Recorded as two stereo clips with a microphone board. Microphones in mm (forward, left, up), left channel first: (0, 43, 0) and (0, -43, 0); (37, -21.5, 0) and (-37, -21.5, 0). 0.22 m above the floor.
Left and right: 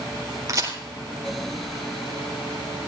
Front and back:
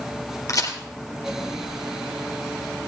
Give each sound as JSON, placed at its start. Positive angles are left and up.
{"t": 0.5, "sound": "a crack", "azimuth_deg": -40, "distance_m": 4.0}